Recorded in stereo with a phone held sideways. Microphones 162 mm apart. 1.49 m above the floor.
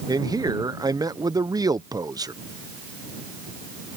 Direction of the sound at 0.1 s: 20° right (ahead or behind).